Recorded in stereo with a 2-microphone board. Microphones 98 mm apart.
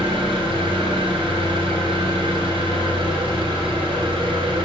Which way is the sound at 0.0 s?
55° right (ahead or behind).